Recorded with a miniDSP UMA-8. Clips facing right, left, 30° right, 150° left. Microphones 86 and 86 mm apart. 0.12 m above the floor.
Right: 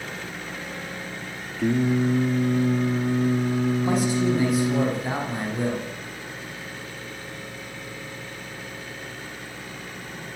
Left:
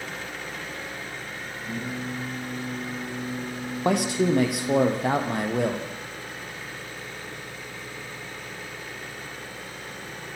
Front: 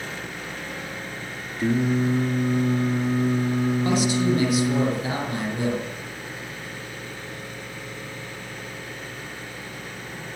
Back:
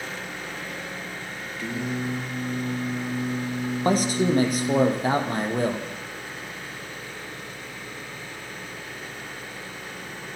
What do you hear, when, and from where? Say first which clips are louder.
1.6 s singing: right 13 dB, front 8 dB; 80° right, 5 m
3.9 s a man speaking: even, back 4 dB; 105° left, 5.5 m